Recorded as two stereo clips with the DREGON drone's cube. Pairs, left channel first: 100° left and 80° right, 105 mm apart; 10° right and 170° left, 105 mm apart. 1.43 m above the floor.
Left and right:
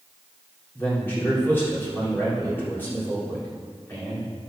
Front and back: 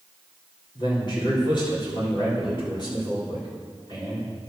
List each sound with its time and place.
0.8 s a man speaking: 30° left, 4 m